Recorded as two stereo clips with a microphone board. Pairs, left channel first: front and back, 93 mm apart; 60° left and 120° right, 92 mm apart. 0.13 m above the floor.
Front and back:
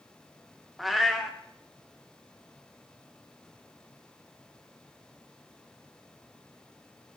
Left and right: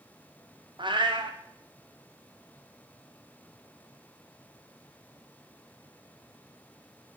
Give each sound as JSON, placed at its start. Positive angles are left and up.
{"t": 0.8, "sound": "a cat meowing", "azimuth_deg": -90, "distance_m": 2.5}